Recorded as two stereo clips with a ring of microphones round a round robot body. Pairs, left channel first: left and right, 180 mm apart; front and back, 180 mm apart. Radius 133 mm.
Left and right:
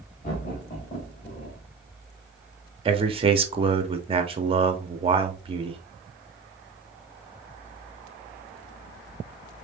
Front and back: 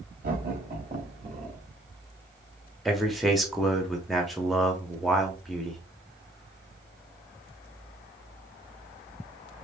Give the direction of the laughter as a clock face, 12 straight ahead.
7 o'clock.